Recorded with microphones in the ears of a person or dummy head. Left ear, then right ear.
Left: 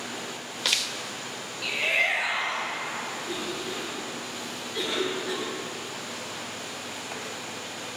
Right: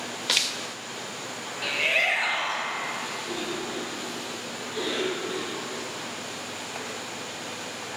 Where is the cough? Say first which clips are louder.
Right 1 dB; 30° left (ahead or behind), 3.5 m.